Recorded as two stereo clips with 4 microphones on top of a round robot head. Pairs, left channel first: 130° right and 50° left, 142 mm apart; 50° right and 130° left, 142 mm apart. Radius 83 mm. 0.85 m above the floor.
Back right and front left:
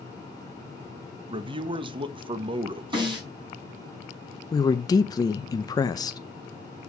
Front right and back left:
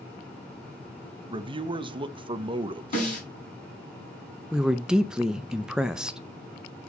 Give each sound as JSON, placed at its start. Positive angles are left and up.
{"t": 1.3, "sound": "a man speaking", "azimuth_deg": 90, "distance_m": 0.9}
{"t": 2.9, "sound": "a snare drum", "azimuth_deg": -15, "distance_m": 6.0}
{"t": 4.5, "sound": "a woman speaking", "azimuth_deg": -150, "distance_m": 0.7}